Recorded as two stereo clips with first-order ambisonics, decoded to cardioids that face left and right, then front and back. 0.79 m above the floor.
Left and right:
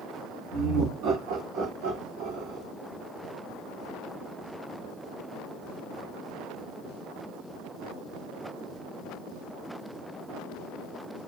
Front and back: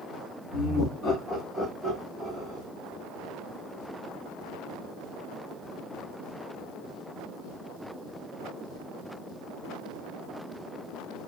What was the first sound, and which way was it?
Laughter, 65° right.